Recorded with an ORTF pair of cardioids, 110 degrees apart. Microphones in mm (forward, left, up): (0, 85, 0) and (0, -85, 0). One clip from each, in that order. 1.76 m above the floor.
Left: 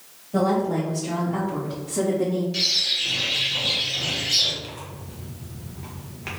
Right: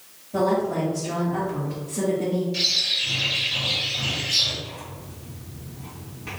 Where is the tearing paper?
60° left, 1.9 m.